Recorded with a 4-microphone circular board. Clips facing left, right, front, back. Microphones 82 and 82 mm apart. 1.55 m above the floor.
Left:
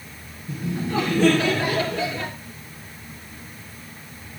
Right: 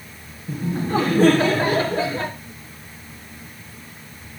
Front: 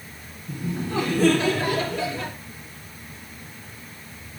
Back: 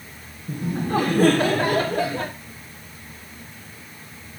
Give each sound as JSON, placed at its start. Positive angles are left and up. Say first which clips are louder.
{"t": 0.5, "sound": "laughter", "louder": "right 3 dB, back 4 dB", "azimuth_deg": -140, "distance_m": 1.2}